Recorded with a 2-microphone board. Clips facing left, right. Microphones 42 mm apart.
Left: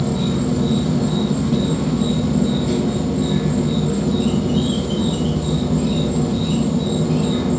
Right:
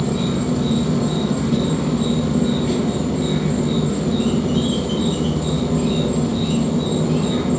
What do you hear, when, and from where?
0.0 s an insect: 80° right, 1.9 m